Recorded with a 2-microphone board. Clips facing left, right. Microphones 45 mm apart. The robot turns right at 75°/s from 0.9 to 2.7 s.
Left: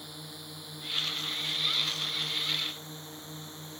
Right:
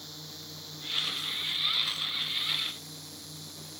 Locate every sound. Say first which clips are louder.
0.0 s a drone: left 1 dB; 15° left; by 3.8 s 150° left